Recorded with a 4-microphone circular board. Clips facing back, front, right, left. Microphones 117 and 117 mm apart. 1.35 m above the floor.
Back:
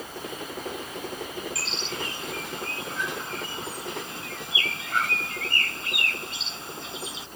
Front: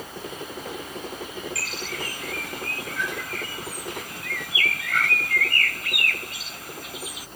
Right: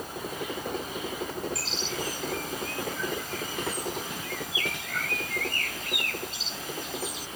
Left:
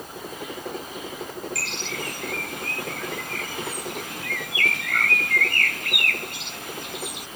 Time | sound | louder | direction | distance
1.6 | a bird | even, left 1 dB | 115° left | ?